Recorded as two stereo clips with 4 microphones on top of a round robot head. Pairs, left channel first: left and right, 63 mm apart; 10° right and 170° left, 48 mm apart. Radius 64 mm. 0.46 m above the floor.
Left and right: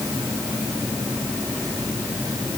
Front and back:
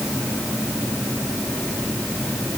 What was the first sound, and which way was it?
Only background noise.